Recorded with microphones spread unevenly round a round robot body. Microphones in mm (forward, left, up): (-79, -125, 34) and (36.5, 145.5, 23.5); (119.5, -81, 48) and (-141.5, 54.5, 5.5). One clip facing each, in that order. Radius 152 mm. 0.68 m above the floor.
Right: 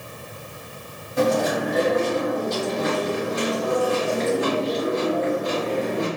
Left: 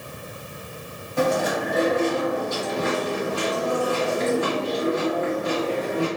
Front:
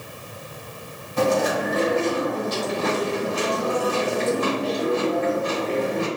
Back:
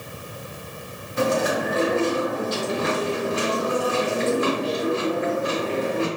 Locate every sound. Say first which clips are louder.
1.2 s chewing: right 2 dB, front 1 dB; 40° right, 1.7 m